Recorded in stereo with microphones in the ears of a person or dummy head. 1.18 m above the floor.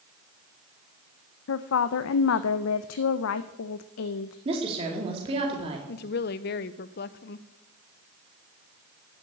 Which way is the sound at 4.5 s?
30° right (ahead or behind).